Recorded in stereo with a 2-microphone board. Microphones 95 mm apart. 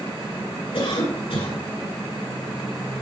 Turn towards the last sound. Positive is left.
turn(degrees=75)  # may be behind; listen again after turning